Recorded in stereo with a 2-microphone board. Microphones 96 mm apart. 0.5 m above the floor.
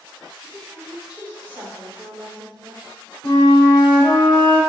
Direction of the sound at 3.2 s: 65° left (ahead or behind).